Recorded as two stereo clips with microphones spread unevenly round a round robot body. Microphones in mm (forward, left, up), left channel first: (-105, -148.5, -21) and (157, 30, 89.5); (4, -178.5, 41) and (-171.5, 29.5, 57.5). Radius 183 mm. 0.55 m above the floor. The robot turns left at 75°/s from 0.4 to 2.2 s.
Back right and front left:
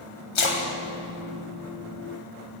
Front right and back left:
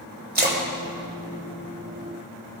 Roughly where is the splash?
Behind.